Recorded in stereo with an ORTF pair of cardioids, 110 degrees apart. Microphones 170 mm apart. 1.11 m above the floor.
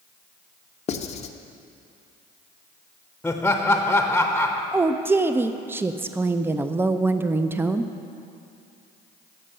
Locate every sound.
0.9 s writing: 40° left, 0.7 m
3.2 s laughter: 10° left, 0.9 m
4.7 s a woman speaking: 15° right, 0.5 m